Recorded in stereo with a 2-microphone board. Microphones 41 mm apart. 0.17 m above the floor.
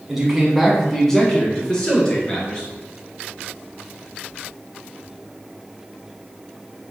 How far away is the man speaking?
About 1.2 m.